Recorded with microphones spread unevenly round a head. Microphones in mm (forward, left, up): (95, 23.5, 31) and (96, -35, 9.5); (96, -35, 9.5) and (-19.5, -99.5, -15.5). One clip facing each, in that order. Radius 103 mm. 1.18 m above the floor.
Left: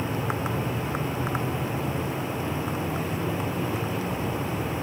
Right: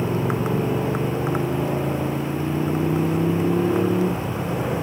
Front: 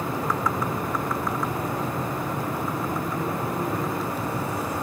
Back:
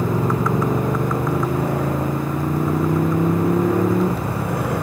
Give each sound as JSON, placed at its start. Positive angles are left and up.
{"t": 0.0, "sound": "a motorcycle", "azimuth_deg": -135}